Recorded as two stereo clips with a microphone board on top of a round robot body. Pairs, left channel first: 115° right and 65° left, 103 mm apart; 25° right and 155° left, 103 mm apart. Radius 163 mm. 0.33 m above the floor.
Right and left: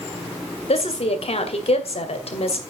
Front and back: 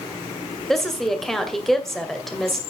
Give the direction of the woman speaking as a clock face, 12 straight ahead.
4 o'clock.